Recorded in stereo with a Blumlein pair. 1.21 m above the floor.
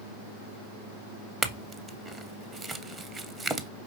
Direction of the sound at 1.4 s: 15° right.